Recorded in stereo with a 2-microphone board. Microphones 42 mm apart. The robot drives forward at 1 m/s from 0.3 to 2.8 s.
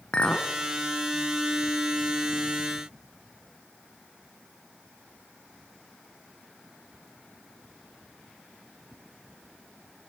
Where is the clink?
25° left (ahead or behind), 1.6 m.